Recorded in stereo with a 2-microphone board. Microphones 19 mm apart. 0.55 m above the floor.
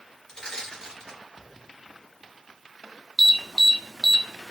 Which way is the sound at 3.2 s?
Centre (ahead or behind).